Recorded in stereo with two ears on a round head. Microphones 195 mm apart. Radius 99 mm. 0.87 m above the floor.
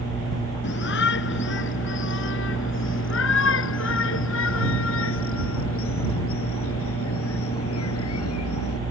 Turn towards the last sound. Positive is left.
turn(degrees=70)  # may be behind; listen again after turning